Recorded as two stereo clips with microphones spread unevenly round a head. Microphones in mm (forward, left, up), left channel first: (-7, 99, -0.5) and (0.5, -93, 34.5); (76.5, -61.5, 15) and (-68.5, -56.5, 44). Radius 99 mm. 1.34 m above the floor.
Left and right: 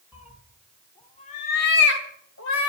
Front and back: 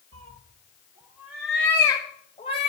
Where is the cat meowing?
155° right, 1.6 m; by 2.7 s 65° left, 1.9 m.